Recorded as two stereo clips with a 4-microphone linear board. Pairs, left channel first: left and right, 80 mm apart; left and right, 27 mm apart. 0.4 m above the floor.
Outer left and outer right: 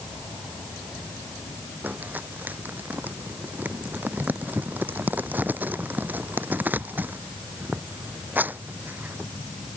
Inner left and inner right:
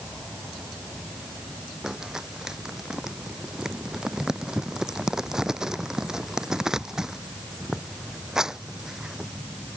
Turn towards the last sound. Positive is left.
turn(degrees=-20)  # may be behind; listen again after turning